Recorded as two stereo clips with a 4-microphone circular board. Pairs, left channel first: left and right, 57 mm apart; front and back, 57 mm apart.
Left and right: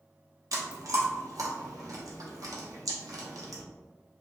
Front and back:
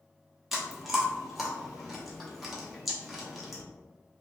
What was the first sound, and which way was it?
Chewing, 95° right.